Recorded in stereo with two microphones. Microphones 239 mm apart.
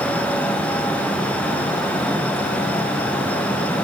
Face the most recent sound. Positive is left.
No sound to turn to.